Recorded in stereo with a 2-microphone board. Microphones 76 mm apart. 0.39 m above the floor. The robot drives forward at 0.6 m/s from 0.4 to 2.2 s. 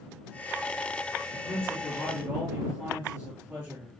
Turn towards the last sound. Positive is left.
turn(degrees=-25)  # may be behind; listen again after turning